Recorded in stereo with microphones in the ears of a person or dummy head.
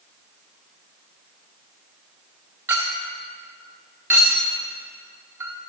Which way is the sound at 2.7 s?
10° right (ahead or behind).